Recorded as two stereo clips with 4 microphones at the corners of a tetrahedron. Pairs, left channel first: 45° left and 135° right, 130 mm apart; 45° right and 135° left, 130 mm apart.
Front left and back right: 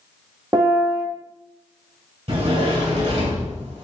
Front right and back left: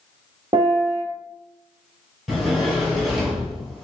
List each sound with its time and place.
0.5 s a piano: 170° left, 1.3 m
2.3 s a sliding door: 140° right, 1.6 m